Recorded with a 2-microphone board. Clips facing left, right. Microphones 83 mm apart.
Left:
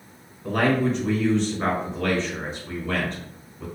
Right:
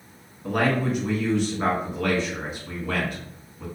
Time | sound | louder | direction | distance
0.4 | a man speaking | left 2 dB | 10° right (ahead or behind) | 1.6 m